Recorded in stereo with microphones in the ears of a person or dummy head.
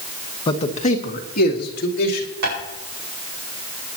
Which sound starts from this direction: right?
Tapping, at 2.4 s.